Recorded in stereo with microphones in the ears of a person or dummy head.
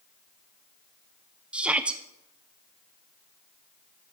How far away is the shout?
About 0.7 m.